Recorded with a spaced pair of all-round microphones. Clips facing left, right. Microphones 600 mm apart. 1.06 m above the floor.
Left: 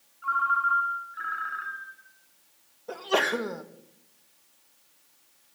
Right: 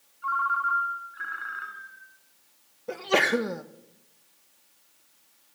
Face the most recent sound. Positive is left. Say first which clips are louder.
# right 2 dB
turn(degrees=-50)  # may be behind; listen again after turning